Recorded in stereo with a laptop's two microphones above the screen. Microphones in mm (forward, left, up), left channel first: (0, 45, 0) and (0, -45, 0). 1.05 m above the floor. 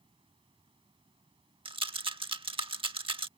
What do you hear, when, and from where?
0.0 s running water: 85° right
1.6 s a rattle: 85° right